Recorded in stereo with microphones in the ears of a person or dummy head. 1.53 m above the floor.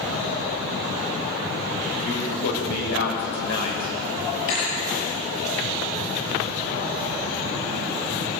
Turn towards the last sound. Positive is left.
turn(degrees=80)